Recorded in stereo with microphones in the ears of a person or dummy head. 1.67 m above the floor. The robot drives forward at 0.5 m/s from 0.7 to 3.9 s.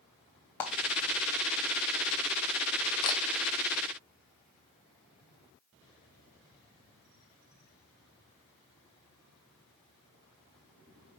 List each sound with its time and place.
0.6 s a clap: 15° left (ahead or behind), 0.7 m
3.0 s a camera shutter: 20° left (ahead or behind), 0.6 m